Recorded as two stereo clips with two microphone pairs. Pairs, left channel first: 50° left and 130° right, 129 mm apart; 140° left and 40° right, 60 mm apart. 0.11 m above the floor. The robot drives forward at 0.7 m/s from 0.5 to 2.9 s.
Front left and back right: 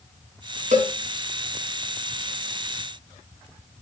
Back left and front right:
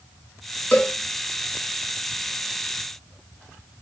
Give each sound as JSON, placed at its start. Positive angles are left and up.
{"t": 0.7, "sound": "a cowbell", "azimuth_deg": -145, "distance_m": 4.5}